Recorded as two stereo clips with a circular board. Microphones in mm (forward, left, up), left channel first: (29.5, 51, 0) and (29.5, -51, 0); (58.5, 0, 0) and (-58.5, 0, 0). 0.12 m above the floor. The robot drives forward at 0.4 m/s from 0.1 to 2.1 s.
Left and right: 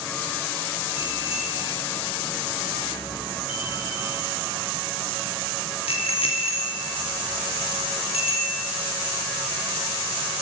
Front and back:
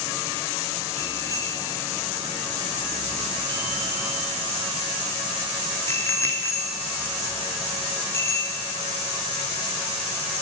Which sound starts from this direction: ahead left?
A bicycle bell, at 1.0 s.